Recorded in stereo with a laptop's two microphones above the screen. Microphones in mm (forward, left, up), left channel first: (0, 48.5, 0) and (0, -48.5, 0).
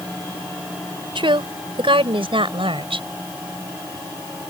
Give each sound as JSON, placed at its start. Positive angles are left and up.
{"t": 1.1, "sound": "a woman speaking", "side_deg": -65}